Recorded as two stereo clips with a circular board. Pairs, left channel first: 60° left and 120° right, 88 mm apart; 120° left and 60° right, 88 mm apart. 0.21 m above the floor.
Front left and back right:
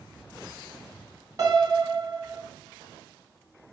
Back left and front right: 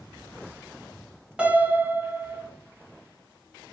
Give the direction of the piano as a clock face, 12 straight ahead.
4 o'clock.